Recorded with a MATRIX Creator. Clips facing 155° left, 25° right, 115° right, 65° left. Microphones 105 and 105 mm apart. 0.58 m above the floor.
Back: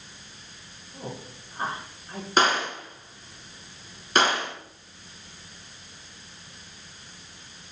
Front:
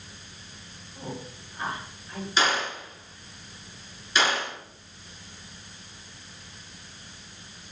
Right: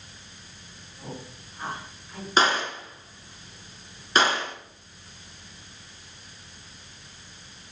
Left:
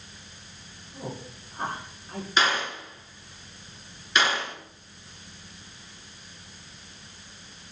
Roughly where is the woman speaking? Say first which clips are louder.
Even, left 3 dB; left.